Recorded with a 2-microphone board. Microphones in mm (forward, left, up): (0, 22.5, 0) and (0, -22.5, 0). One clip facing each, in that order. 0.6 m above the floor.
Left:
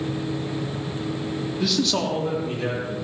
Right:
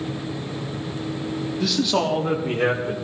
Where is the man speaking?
10° left (ahead or behind), 1.3 m; by 2.9 s 55° right (ahead or behind), 2.5 m.